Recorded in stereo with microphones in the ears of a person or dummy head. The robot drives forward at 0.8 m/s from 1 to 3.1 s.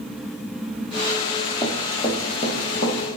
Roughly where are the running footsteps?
Centre.